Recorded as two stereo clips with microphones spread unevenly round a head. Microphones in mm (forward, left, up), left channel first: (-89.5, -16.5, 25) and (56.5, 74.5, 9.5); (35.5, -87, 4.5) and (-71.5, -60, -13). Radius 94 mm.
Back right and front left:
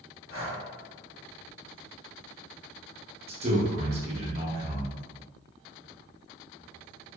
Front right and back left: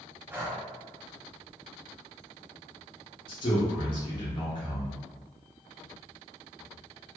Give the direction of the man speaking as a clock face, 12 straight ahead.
11 o'clock.